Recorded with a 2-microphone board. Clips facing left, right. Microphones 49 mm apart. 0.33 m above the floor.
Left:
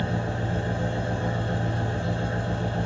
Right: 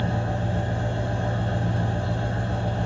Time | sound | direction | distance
0.0 | an engine running | 60° left (ahead or behind) | 1.9 m